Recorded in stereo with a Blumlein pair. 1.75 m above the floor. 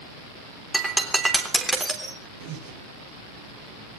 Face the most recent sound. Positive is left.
turn(degrees=-50)